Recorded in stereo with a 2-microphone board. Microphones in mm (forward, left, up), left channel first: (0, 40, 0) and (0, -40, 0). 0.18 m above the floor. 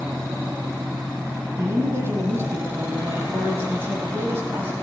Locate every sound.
1.6 s a man speaking: 35° right (ahead or behind), 6 m